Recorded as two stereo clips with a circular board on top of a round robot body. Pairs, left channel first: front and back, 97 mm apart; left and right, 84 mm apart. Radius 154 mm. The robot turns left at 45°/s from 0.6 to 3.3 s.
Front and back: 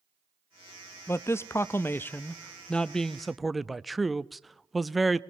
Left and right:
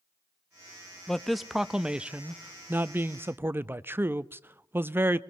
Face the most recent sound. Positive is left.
turn(degrees=-90)